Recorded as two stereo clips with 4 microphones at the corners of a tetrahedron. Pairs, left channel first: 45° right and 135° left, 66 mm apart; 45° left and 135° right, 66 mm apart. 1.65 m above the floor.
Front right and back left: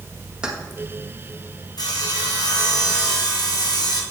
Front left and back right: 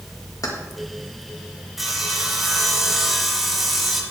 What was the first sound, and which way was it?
Keys jangling, 60° left.